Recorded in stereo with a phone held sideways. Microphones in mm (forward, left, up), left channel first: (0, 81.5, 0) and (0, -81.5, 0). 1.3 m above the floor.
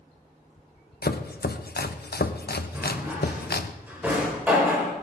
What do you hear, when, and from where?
1.0 s chopping: 80° left, 0.8 m
2.7 s a drawer: 10° right (ahead or behind), 3.5 m